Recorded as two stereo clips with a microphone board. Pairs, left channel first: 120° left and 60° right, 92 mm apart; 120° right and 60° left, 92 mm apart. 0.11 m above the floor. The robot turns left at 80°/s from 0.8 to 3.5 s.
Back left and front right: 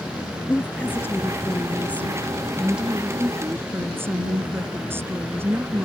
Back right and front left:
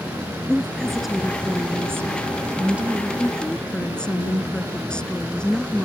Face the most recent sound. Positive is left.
turn(degrees=-50)